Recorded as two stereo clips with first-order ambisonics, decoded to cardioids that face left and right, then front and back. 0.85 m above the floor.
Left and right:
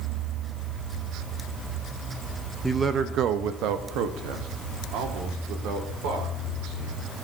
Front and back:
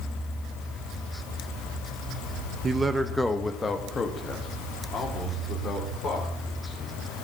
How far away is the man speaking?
About 0.5 m.